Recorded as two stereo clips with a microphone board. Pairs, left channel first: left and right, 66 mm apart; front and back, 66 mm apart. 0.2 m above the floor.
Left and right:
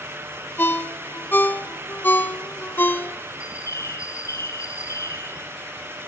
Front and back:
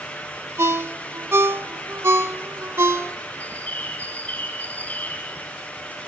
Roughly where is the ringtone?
Behind left.